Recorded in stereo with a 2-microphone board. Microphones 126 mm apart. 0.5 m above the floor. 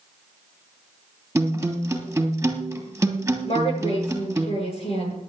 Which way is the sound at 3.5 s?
50° left (ahead or behind).